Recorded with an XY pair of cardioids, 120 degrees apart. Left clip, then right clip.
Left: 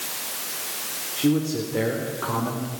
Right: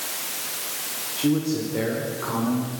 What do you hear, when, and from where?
1.2 s a man speaking: 15° left, 3.5 m; by 2.7 s 30° left, 5 m